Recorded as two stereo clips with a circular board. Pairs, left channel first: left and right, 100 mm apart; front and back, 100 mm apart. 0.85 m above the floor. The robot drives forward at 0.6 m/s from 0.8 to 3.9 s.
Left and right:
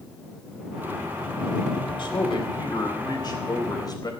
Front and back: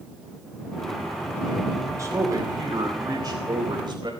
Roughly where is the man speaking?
Behind left.